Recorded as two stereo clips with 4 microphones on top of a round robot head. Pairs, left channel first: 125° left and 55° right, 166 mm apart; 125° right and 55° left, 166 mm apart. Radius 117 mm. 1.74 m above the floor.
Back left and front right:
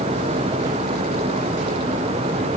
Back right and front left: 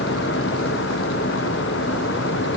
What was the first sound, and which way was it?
Only background noise.